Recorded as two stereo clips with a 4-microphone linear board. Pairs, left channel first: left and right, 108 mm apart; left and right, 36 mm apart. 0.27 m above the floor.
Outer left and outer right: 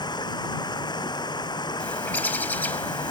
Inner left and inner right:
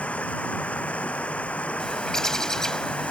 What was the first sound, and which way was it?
Running water, 40° left (ahead or behind).